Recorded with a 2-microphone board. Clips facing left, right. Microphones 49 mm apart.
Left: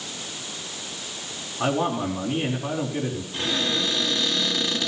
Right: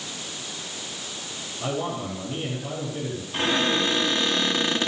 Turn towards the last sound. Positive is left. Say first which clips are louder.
# right 4 dB
turn(degrees=-35)  # may be behind; listen again after turning